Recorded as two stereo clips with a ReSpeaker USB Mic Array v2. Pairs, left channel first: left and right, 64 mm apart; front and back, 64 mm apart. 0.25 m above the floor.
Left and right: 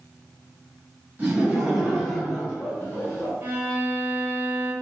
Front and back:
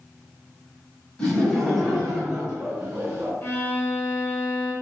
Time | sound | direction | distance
1.2 | laughter | 60° right | 1.5 m
3.4 | a violin | 40° right | 1.2 m